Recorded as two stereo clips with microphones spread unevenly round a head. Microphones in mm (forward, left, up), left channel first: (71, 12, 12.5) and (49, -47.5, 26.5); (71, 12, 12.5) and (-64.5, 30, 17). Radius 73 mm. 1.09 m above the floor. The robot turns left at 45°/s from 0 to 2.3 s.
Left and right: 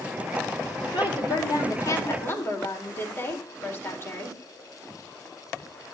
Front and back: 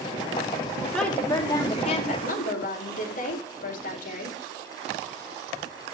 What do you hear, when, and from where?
0.9 s a woman speaking: 80° left, 4.5 m; by 4.4 s 20° left, 4.5 m